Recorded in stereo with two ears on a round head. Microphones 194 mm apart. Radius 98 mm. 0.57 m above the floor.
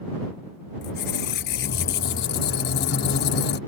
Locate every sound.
0.8 s a squeak: 50° left (ahead or behind)